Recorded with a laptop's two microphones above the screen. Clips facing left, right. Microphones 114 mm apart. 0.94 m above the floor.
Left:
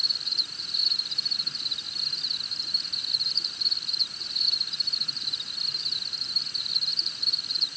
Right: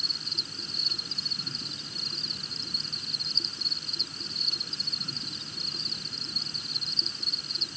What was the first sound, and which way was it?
An insect, 35° right (ahead or behind).